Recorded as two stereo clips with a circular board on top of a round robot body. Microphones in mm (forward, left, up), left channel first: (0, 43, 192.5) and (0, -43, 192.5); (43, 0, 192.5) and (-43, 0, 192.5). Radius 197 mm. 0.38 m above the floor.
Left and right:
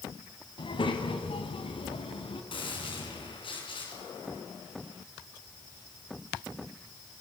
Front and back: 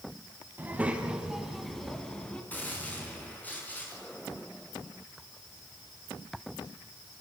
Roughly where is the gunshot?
Left.